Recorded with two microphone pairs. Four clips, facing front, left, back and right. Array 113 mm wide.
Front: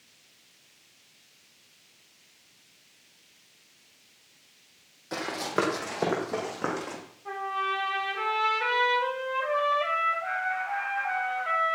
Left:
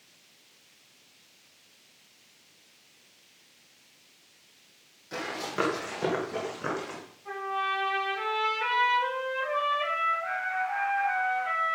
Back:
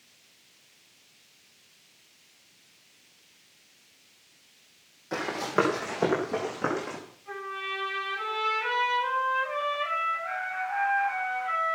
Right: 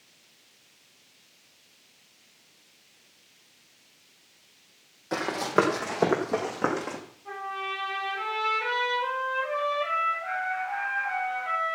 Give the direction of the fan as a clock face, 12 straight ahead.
I don't hear a fan.